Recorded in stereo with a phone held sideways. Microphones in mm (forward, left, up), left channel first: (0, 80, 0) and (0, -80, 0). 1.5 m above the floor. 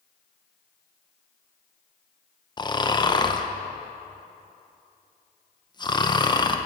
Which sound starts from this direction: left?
Snoring, at 2.6 s.